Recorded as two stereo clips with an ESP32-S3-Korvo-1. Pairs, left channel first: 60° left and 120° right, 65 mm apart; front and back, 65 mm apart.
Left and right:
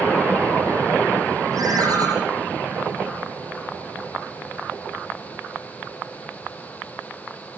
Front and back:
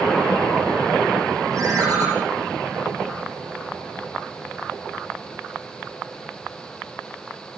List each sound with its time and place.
1.5 s a ringtone: 150° right, 8 m